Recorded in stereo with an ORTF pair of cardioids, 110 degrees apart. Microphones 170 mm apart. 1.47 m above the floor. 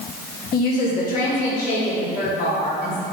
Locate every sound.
0.5 s a woman speaking: 55° left, 1.8 m; by 3.0 s 60° left, 3.5 m